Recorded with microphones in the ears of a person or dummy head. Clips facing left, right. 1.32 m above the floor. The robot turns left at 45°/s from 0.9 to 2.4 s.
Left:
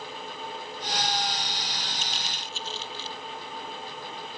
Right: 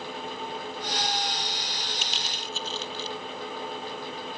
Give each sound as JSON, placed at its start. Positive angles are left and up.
{"t": 2.0, "sound": "crushing", "side_deg": -55}